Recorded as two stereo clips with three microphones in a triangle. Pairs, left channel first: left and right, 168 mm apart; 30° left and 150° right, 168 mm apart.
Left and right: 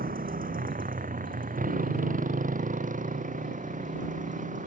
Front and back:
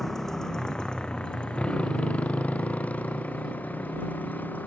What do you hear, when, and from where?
0.0 s a motorcycle: 60° right; by 4.7 s 50° right